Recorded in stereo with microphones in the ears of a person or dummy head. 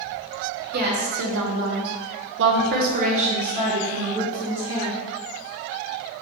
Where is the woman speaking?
55° right (ahead or behind), 1.1 m; by 5.0 s 10° right (ahead or behind), 1.7 m.